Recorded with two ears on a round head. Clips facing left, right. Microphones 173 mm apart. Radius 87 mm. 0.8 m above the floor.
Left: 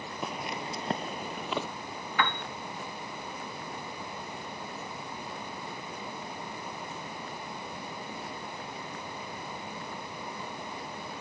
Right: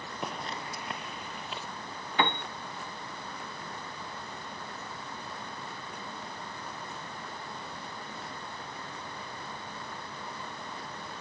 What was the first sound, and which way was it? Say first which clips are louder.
Footsteps: left 2 dB; centre (ahead or behind).